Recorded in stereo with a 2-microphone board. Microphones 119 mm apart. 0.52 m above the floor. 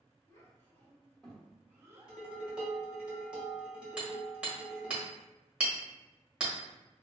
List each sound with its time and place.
0.3 s a child speaking: 25° left (ahead or behind), 1.6 m; by 2.2 s 35° right (ahead or behind), 0.9 m
2.1 s dishes clattering: 5° right (ahead or behind), 1.5 m
4.0 s hammering: 10° right (ahead or behind), 1.5 m